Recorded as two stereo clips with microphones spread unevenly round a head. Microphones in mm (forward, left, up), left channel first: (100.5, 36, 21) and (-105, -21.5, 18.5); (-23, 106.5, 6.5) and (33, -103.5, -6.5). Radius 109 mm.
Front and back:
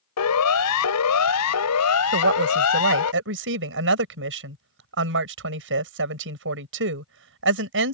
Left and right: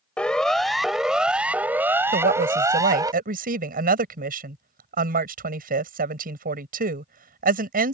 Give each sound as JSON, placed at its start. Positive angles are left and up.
{"t": 0.2, "sound": "a siren", "azimuth_deg": 20}
{"t": 2.1, "sound": "a woman speaking", "azimuth_deg": -130}